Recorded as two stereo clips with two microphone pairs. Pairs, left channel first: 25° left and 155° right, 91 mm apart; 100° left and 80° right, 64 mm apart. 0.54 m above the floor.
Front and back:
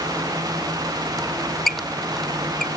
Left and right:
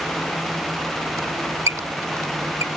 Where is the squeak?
60° right.